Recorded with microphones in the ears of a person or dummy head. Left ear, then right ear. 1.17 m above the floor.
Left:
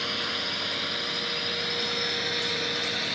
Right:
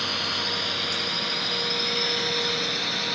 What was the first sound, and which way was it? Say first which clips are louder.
A drone: right 3 dB; 5° left (ahead or behind).